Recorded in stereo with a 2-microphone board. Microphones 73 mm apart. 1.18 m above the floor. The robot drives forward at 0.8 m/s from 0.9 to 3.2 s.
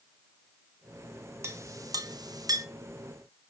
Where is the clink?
35° right (ahead or behind), 0.8 m; by 2.6 s 45° right (ahead or behind), 0.7 m.